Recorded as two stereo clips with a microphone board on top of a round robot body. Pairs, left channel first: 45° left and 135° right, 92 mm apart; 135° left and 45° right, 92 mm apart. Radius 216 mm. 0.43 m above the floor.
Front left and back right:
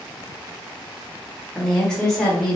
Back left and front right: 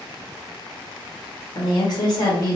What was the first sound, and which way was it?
A woman speaking, 130° left.